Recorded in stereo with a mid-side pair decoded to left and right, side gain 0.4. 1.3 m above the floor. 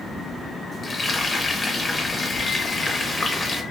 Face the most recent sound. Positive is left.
turn(degrees=30)